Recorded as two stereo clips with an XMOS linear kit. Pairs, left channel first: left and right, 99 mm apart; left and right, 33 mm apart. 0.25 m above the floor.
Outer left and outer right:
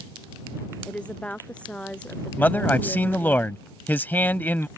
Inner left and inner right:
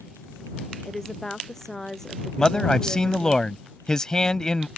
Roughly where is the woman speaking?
Centre.